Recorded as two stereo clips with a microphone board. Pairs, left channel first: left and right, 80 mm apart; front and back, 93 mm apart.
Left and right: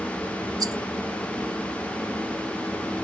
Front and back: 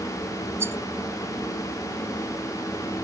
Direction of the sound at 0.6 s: 120° right.